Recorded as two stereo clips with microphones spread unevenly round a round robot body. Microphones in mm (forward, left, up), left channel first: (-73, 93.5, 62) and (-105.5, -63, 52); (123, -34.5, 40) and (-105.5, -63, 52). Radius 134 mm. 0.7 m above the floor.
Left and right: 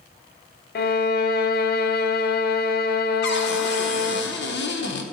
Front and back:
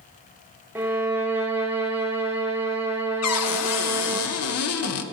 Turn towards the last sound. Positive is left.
turn(degrees=40)